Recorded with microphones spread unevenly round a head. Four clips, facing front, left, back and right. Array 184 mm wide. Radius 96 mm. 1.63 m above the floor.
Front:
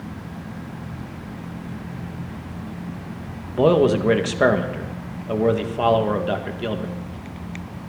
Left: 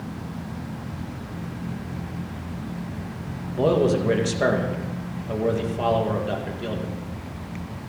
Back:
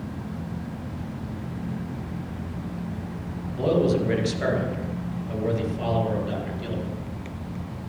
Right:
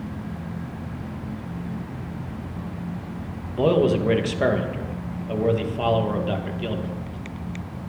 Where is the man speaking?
Straight ahead, 2 m.